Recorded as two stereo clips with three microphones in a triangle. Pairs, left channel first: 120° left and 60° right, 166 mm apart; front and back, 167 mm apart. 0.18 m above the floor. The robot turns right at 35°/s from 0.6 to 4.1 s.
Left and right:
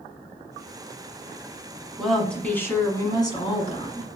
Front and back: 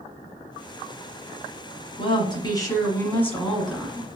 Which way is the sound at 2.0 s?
30° left.